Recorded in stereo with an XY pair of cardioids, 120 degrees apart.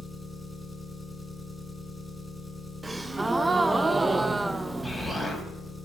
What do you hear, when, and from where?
0.0 s an engine running: straight ahead, 3 m
2.8 s a gasp: 20° right, 0.7 m
4.8 s an explosion: 10° right, 3 m